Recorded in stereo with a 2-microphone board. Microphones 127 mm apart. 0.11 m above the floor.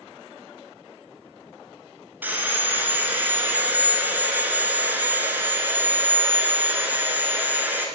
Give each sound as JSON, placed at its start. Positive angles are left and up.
{"t": 2.2, "sound": "sawing", "side_deg": -15, "distance_m": 1.7}